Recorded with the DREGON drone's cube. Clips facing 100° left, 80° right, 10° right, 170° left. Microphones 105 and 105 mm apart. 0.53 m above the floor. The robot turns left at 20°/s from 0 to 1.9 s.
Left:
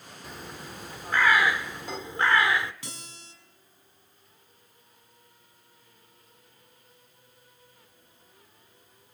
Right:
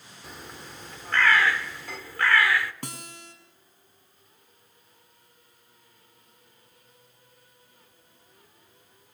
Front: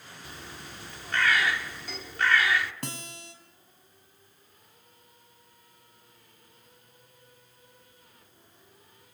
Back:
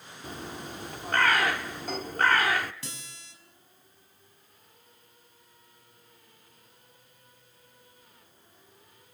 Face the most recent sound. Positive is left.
turn(degrees=-45)